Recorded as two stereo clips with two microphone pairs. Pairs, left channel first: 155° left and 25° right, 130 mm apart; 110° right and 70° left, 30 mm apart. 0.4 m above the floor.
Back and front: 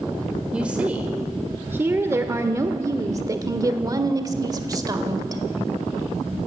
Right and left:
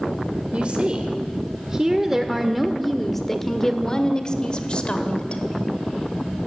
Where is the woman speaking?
55° left, 1.8 m; by 5.4 s 75° right, 2 m.